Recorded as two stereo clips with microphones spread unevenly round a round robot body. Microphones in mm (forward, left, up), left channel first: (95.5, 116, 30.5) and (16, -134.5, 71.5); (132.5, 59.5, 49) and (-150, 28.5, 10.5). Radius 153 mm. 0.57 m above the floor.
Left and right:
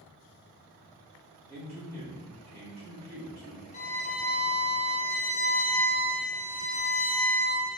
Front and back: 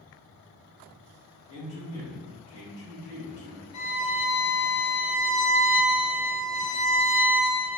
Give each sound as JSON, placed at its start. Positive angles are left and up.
{"t": 1.5, "sound": "a man speaking", "azimuth_deg": -25, "distance_m": 1.8}
{"t": 3.7, "sound": "a violin", "azimuth_deg": 10, "distance_m": 1.2}